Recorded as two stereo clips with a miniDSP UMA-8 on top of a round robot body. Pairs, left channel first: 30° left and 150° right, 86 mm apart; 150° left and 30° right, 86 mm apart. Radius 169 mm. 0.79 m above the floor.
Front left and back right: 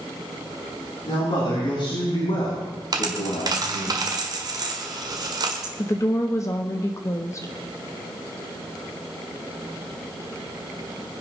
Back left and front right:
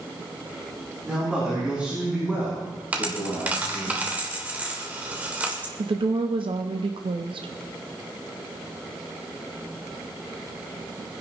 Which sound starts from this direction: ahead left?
A man speaking, at 1.1 s.